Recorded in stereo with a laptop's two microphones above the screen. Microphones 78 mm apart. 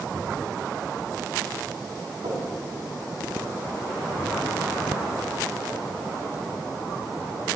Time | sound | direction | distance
2.2 | knocking | 80° right | 5.5 m